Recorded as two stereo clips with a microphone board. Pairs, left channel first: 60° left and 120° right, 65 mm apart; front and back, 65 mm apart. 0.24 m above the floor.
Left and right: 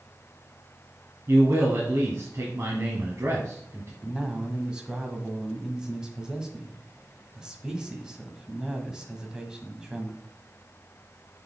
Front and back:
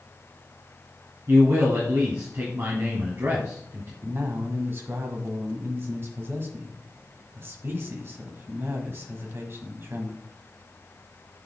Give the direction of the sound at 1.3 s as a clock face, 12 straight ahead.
5 o'clock.